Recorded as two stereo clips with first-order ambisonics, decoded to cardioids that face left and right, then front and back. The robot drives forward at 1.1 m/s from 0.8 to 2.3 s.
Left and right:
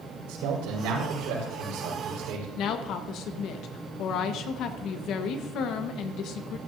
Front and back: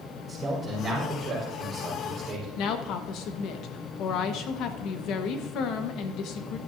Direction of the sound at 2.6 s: 45° left.